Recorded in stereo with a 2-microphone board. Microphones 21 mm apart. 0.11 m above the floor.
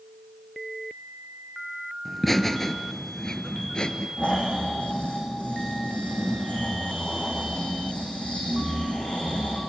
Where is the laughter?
5° left (ahead or behind), 1.7 m; by 4.1 s 45° left (ahead or behind), 1.7 m.